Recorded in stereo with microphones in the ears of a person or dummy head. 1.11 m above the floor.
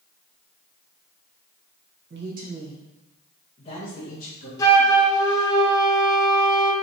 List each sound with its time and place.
2.1 s a man speaking: 50° right (ahead or behind), 0.8 m; by 4.5 s 45° left (ahead or behind), 1.9 m
4.6 s a flute: 15° left (ahead or behind), 0.7 m